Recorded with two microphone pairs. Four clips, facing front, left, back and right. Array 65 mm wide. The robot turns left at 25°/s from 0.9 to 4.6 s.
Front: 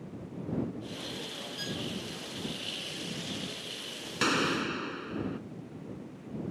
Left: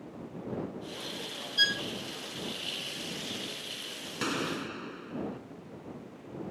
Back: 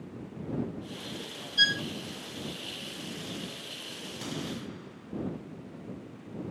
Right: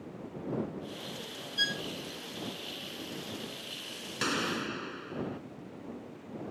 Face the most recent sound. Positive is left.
turn(degrees=-30)